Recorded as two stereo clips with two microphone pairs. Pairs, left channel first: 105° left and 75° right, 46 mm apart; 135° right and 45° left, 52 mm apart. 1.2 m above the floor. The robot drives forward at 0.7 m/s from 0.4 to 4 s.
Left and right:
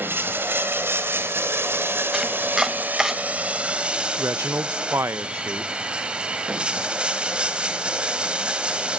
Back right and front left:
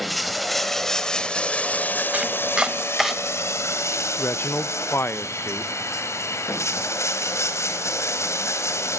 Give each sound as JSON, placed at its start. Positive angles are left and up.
{"t": 0.0, "sound": "running water", "azimuth_deg": -45, "distance_m": 1.7}
{"t": 2.1, "sound": "chopping", "azimuth_deg": -5, "distance_m": 1.3}
{"t": 4.2, "sound": "a man speaking", "azimuth_deg": -100, "distance_m": 0.7}